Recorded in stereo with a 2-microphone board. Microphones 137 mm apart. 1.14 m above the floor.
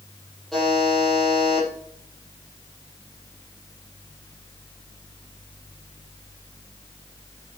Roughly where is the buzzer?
Centre.